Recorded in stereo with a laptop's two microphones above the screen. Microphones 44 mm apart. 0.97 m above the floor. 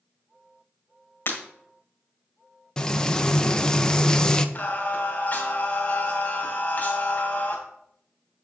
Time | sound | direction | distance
1.3 | breaking glass | 55° left (ahead or behind) | 1.6 m
2.8 | frying | 20° left (ahead or behind) | 0.6 m
4.5 | singing | 40° left (ahead or behind) | 2 m